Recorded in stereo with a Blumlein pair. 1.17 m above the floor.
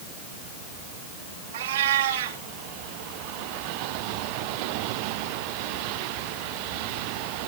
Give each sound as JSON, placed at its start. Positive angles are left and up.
{"t": 1.5, "sound": "a cat meowing", "azimuth_deg": -60, "distance_m": 2.5}